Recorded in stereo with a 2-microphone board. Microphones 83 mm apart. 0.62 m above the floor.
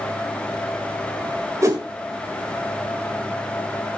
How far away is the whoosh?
About 1.9 m.